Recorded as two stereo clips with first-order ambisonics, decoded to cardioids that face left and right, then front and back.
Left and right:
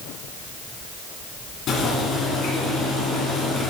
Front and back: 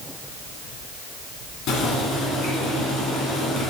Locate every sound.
1.7 s boiling: 35° left, 2 m